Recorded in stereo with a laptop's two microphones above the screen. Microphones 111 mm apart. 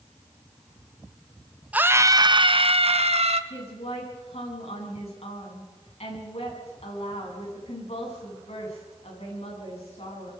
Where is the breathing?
I don't hear breathing.